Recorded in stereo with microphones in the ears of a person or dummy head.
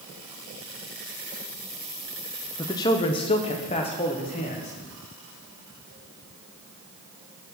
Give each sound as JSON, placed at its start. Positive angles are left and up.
{"t": 2.6, "sound": "a man speaking", "side_deg": 20, "distance_m": 0.7}